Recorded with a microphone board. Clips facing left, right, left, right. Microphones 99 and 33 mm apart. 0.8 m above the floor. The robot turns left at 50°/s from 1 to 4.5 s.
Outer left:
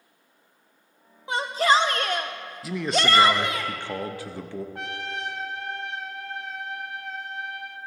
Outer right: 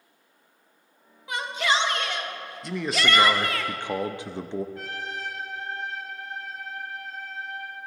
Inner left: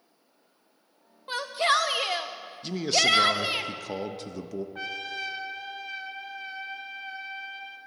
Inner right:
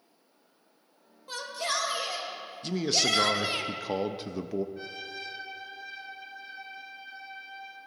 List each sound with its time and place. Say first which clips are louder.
1.3 s a shout: outer left 5 dB, inner left 8 dB; 140° left, 0.6 m; by 3.6 s 20° left, 0.6 m
2.6 s a man speaking: outer left 2 dB, inner left 3 dB; 5° left (ahead or behind), 0.5 m; by 4.7 s 20° right (ahead or behind), 0.5 m
4.8 s a trumpet: outer left 2 dB, inner left 5 dB; 70° left (ahead or behind), 0.8 m